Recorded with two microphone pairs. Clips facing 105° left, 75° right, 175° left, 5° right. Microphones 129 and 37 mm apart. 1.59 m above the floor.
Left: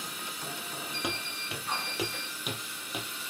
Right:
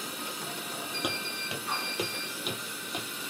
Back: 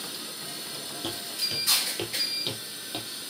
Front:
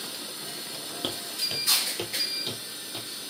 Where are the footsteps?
5° left, 1.7 m; by 3.1 s 170° right, 2 m.